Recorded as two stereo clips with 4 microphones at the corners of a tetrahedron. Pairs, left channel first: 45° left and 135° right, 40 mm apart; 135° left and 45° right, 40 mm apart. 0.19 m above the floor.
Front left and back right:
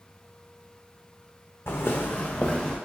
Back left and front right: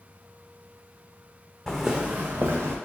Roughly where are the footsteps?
Ahead left.